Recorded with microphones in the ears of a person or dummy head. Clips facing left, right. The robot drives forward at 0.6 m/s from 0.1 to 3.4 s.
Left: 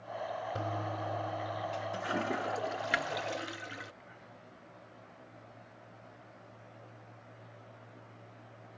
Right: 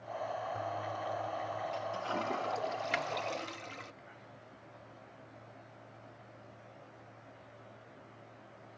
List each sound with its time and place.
0.6 s a toilet flushing: 45° left (ahead or behind); by 3.9 s 10° left (ahead or behind)